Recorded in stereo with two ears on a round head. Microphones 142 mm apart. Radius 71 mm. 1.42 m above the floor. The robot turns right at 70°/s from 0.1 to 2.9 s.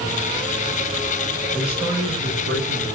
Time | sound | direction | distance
1.5 | a man speaking | 175° left | 6.5 m